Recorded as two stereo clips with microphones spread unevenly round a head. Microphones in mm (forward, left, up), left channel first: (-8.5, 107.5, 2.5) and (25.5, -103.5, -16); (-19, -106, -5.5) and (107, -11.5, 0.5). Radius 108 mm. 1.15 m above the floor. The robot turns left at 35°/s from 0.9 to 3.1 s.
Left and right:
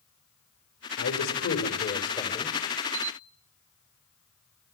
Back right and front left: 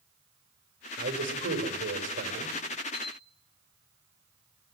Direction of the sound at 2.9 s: 135° right.